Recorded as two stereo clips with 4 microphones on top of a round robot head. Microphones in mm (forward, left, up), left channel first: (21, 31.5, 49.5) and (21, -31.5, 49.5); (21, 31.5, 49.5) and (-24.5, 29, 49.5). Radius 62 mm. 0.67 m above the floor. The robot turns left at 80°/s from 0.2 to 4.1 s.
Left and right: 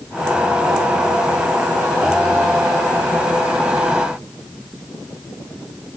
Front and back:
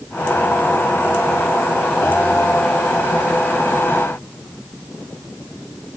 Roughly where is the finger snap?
No finger snap in this recording.